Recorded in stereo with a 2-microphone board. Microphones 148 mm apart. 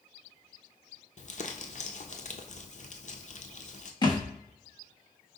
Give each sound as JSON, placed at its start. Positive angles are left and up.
{"t": 1.2, "sound": "crumpling", "side_deg": 55, "distance_m": 0.6}
{"t": 4.0, "sound": "a thud", "side_deg": 30, "distance_m": 1.1}